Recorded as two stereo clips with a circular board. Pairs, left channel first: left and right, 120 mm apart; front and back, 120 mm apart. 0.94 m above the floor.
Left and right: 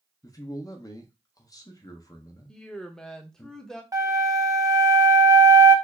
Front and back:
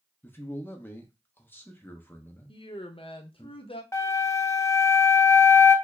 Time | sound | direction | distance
0.2 | a man speaking | 60° left | 0.8 m
2.5 | a woman speaking | 10° left | 0.7 m
3.9 | a flute | 50° right | 0.6 m